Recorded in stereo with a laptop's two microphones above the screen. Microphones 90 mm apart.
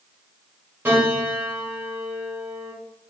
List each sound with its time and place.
0.8 s a piano: 20° right (ahead or behind), 1.3 m